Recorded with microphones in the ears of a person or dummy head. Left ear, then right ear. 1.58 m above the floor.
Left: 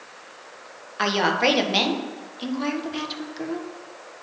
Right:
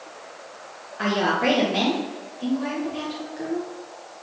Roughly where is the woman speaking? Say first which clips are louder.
Left 2 dB; left.